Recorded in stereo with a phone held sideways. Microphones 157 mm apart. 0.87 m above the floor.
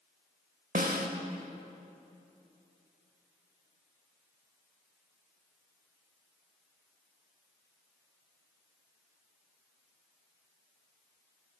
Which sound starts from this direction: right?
A snare drum, at 0.8 s.